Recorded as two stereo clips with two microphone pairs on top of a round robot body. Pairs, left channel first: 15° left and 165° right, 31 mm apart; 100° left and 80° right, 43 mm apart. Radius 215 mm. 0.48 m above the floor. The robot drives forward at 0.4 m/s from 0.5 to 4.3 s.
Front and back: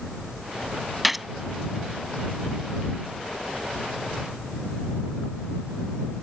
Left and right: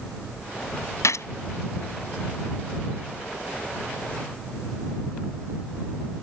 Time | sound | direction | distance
1.0 | a gunshot | 105° left | ?